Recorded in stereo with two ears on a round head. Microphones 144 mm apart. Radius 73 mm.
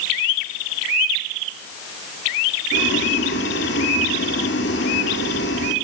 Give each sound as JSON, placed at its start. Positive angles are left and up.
{"t": 2.7, "sound": "boiling", "side_deg": 75, "distance_m": 3.0}